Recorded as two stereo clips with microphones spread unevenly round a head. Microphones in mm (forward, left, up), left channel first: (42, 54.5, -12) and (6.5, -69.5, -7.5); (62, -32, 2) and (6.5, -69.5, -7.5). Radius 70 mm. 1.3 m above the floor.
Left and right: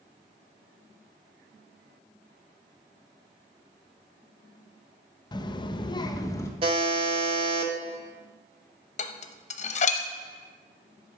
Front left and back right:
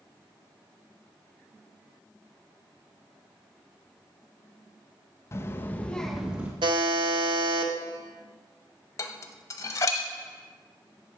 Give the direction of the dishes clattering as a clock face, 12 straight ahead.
10 o'clock.